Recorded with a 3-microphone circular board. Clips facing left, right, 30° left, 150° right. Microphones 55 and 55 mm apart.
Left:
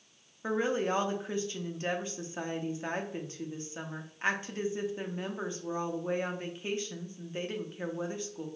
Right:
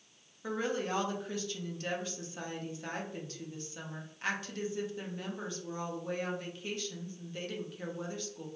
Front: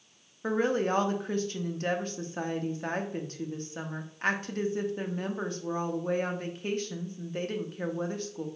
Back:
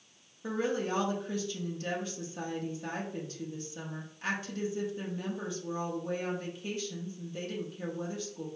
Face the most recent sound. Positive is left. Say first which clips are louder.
# left 4 dB, front 5 dB
turn(degrees=35)